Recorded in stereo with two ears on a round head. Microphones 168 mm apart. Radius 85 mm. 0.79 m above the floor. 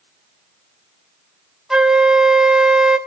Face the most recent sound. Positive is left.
turn(degrees=-5)  # may be behind; listen again after turning